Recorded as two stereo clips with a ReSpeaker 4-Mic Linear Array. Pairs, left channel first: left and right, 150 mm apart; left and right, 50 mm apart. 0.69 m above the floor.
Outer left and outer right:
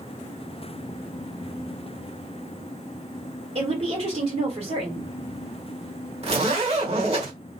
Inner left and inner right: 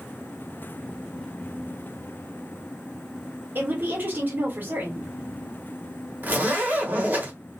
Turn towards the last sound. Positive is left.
turn(degrees=-40)  # may be behind; listen again after turning